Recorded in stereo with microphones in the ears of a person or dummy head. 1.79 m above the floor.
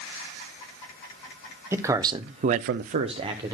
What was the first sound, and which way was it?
A man speaking, 15° right (ahead or behind).